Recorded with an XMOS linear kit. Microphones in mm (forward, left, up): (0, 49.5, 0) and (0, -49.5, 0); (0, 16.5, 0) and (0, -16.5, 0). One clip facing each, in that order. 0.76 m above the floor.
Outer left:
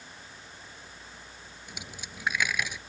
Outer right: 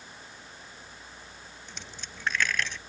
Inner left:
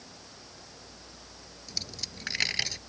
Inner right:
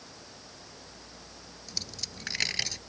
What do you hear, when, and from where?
1.7 s a dropped coin: 10° left (ahead or behind)